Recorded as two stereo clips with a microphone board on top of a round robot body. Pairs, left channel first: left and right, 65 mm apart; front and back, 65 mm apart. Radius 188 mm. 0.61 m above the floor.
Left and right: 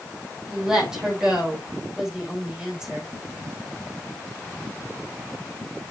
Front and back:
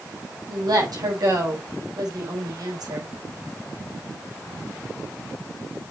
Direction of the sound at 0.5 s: 170° right.